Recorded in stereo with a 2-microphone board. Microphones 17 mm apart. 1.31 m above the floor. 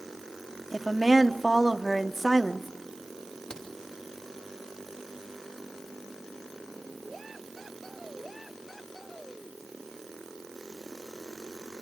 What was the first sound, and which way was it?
A woman speaking, 5° left (ahead or behind).